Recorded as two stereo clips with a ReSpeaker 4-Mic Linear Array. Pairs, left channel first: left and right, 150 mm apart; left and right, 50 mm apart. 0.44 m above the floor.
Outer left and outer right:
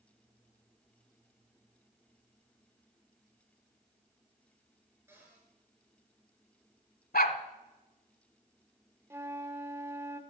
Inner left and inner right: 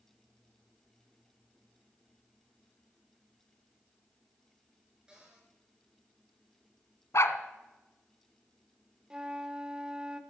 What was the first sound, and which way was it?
A cupboard door, 15° right (ahead or behind).